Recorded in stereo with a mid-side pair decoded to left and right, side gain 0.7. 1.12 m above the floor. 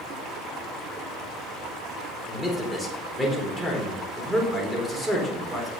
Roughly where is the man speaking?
Ahead.